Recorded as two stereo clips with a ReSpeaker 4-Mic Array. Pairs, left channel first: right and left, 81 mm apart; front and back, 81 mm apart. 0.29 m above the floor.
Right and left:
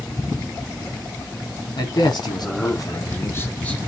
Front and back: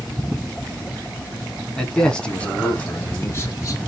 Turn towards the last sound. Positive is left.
turn(degrees=-15)